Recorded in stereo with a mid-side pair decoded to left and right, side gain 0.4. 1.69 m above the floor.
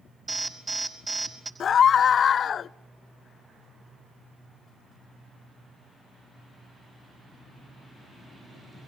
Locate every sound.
0.3 s an alarm: 25° right, 5 m
1.6 s a scream: 60° left, 0.5 m